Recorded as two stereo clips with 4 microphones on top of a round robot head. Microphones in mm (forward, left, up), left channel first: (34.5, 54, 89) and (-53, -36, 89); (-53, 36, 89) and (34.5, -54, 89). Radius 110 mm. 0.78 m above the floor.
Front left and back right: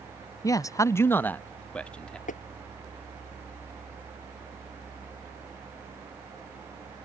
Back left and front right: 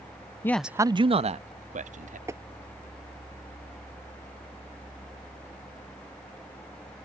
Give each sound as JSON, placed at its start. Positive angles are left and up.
{"t": 0.4, "sound": "a man speaking", "azimuth_deg": 85}
{"t": 2.3, "sound": "tapping", "azimuth_deg": 25}